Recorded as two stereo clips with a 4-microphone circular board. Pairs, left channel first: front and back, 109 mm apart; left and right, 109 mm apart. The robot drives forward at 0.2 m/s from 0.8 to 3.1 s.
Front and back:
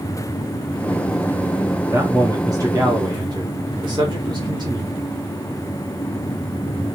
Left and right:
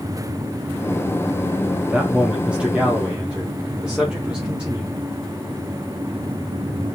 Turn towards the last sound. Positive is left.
turn(degrees=-165)